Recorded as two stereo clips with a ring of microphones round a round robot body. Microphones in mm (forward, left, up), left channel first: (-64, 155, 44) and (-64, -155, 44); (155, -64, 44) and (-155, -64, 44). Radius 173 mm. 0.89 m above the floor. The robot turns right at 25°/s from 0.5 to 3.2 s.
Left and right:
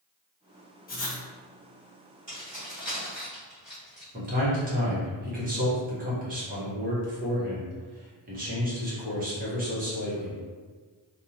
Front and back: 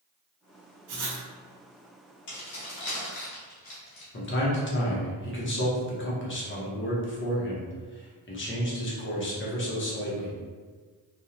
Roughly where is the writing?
Behind left.